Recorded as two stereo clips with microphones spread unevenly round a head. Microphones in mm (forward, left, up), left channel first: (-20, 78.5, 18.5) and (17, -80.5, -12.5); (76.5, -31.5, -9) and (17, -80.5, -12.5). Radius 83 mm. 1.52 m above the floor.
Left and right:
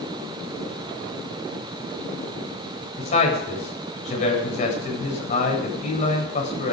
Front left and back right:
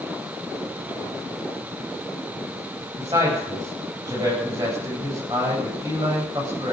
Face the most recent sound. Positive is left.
turn(degrees=155)